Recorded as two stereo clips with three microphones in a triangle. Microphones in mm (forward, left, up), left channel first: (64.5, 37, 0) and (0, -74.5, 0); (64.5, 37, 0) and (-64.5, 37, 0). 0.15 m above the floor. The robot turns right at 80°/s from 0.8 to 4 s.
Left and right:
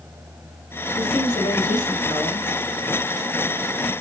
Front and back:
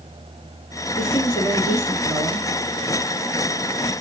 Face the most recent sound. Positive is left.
turn(degrees=-120)